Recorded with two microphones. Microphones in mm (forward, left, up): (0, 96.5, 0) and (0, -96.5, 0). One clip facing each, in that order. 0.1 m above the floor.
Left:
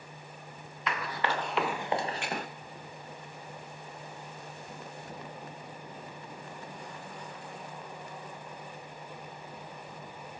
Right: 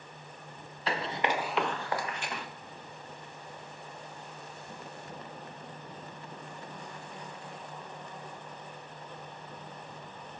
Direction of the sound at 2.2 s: 80° left.